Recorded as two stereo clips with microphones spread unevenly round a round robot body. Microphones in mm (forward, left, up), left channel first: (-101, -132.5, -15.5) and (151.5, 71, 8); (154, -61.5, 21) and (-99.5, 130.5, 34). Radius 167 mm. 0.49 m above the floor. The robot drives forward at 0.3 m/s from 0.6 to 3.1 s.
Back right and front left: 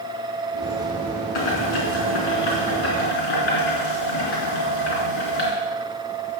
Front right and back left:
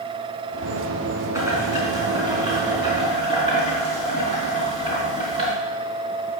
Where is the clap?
No clap in this recording.